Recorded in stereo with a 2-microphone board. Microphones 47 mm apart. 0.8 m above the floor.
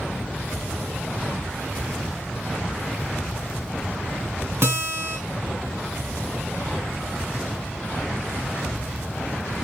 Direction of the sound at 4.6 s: 70° right (ahead or behind).